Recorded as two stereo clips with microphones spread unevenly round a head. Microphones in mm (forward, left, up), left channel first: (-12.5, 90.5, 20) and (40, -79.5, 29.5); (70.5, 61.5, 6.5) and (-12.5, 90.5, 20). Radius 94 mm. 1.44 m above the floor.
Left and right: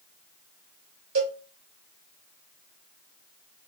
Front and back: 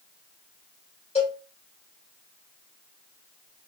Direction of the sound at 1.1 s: 75° right.